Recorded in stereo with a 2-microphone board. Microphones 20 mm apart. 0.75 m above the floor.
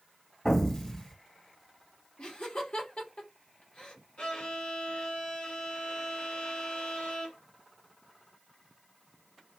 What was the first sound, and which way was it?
An explosion, 25° left (ahead or behind).